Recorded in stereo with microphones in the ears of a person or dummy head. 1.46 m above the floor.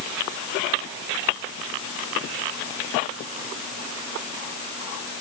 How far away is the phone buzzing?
No phone buzzing in this recording.